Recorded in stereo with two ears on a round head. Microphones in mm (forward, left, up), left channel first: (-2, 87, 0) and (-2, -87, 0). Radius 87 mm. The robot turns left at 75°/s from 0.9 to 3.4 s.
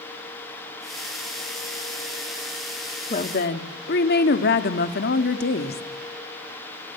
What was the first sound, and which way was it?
A woman speaking, 35° left (ahead or behind).